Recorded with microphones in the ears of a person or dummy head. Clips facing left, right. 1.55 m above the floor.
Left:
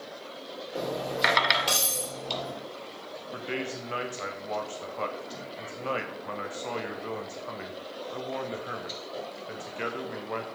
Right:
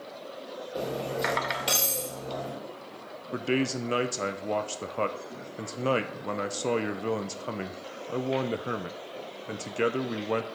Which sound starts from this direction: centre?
Cutlery clinking, at 0.8 s.